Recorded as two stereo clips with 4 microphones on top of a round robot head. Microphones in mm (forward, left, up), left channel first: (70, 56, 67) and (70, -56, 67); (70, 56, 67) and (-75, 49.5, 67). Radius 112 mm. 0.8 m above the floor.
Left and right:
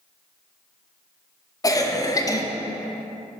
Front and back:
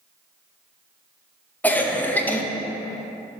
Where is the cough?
70° left, 0.7 m.